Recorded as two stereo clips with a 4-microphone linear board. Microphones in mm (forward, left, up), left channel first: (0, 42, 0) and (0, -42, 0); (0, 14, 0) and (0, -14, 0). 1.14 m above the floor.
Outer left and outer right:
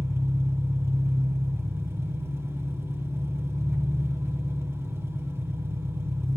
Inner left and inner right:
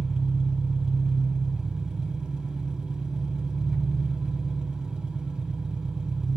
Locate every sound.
0.0 s an engine running: 30° right (ahead or behind), 1.7 m